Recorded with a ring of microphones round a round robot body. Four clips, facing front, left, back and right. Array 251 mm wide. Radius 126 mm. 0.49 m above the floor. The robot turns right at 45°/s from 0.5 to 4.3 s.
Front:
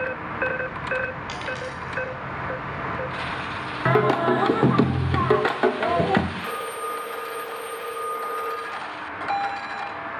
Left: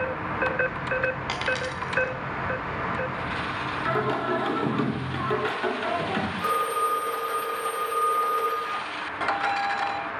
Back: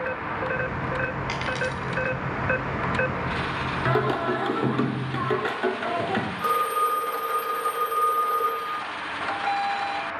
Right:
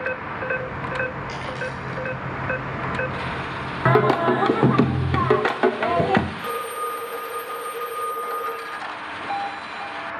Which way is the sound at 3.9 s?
75° right.